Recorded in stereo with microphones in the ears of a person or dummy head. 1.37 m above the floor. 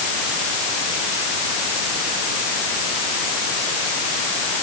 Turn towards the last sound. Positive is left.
No sound to turn to.